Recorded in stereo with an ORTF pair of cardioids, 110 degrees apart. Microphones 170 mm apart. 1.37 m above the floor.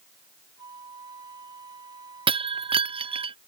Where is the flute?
25° right.